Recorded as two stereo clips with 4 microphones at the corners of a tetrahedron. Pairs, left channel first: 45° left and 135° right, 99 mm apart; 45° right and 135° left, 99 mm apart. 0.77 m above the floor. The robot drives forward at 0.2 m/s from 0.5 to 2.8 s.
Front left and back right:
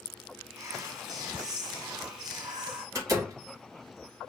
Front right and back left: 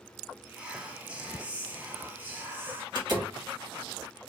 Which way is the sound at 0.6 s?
155° right.